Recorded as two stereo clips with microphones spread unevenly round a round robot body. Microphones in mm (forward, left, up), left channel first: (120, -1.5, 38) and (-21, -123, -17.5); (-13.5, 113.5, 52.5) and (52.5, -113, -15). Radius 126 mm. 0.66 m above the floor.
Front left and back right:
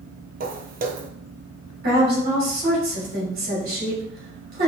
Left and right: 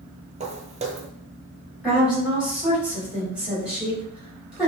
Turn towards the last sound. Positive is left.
turn(degrees=-150)